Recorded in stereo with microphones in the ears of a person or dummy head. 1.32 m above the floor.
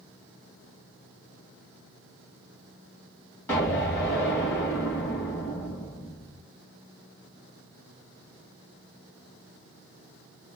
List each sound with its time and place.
3.5 s an explosion: 15° left (ahead or behind), 1.8 m